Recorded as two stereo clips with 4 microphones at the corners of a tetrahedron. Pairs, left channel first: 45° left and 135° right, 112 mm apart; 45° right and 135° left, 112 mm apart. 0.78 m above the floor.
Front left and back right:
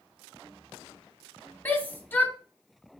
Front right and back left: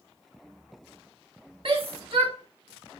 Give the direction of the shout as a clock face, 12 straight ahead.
8 o'clock.